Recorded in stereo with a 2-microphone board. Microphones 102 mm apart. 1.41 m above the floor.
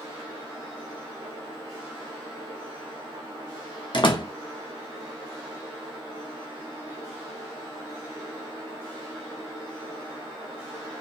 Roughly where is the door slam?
Left.